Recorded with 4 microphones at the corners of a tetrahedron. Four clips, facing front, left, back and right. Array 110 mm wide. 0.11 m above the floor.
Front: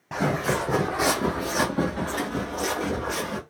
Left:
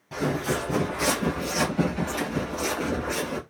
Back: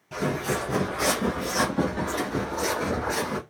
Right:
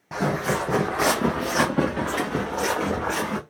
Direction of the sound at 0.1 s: 40° right.